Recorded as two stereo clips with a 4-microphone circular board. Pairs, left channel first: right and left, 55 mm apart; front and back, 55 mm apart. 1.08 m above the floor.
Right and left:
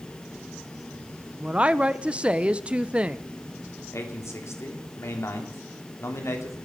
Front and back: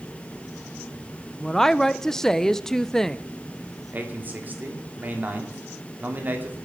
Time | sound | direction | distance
1.4 | a woman speaking | 65° left | 0.6 m
3.9 | a man speaking | 125° right | 3 m